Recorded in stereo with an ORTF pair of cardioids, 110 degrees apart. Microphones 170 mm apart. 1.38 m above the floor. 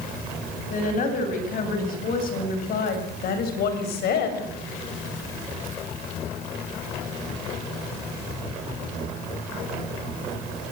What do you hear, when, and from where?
0.7 s a woman speaking: 50° left, 7.5 m; by 4.5 s 75° left, 6 m